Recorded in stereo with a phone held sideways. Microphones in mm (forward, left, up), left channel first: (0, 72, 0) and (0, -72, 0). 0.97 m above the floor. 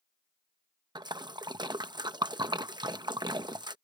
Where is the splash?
30° right (ahead or behind).